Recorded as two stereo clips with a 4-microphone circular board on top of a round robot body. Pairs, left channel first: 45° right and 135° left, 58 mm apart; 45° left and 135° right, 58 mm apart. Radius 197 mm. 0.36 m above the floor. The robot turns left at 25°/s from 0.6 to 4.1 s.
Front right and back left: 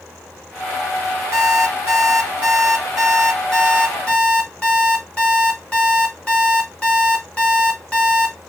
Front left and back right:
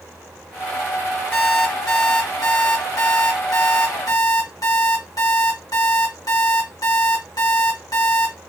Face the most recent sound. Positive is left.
turn(degrees=25)